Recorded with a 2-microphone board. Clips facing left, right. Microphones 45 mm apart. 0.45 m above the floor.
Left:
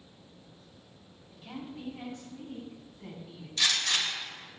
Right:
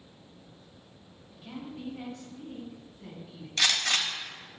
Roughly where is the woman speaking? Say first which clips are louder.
Right 1 dB; centre.